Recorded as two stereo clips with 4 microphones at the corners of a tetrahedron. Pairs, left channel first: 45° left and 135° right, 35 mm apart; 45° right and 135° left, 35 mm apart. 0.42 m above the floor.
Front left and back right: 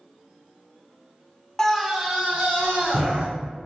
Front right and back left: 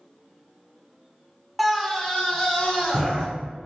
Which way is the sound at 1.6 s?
45° left.